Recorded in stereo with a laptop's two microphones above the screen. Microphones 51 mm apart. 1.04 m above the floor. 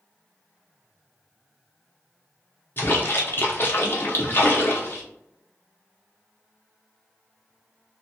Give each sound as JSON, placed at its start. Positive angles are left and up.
{"t": 2.8, "sound": "a splash", "side_deg": 45, "distance_m": 0.6}